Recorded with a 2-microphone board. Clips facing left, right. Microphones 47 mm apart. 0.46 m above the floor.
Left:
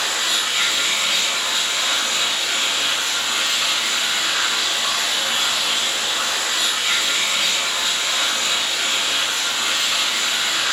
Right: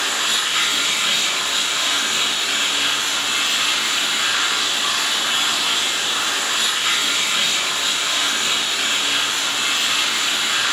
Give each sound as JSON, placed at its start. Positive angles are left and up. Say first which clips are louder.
{"t": 0.0, "sound": "running water", "louder": "right 1 dB", "side_deg": -75, "distance_m": 0.9}